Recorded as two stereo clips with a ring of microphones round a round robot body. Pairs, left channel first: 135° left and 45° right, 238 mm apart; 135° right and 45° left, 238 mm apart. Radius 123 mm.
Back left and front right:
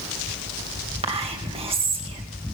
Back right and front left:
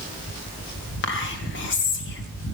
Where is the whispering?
105° right, 2.5 m.